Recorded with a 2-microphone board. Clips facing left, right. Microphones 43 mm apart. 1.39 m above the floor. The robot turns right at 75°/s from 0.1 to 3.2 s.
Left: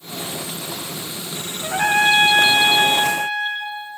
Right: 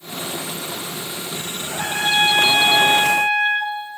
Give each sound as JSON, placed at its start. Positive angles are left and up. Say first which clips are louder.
{"t": 1.6, "sound": "a trumpet", "louder": "left 7 dB", "azimuth_deg": 105, "distance_m": 2.5}